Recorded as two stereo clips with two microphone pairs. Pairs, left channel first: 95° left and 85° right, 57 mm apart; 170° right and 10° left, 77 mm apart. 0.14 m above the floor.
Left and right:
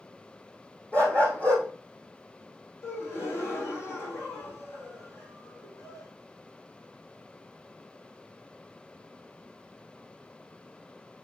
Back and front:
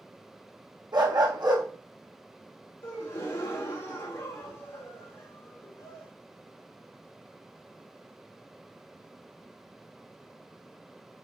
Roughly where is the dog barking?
Ahead left.